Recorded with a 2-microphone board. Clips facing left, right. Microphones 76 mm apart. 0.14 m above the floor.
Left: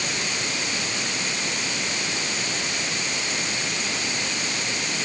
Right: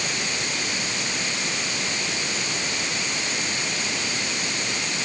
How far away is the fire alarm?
I don't hear a fire alarm.